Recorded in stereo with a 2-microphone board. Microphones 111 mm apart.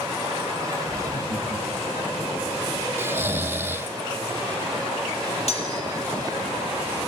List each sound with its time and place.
0.9 s laughter: 5° right (ahead or behind), 6 m
3.0 s snoring: 20° right (ahead or behind), 0.9 m
5.5 s cutlery clinking: 65° left (ahead or behind), 7 m